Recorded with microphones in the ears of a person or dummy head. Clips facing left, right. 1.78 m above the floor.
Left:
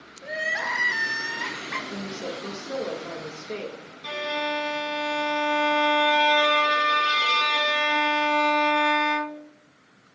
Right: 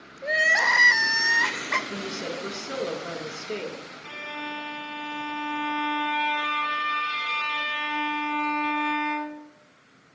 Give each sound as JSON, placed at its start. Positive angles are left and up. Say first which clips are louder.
{"t": 0.2, "sound": "crying", "louder": "right 4 dB", "side_deg": -65, "distance_m": 1.0}
{"t": 1.9, "sound": "a woman speaking", "louder": "left 3 dB", "side_deg": -15, "distance_m": 4.0}
{"t": 4.0, "sound": "a violin", "louder": "left 11 dB", "side_deg": 65, "distance_m": 0.6}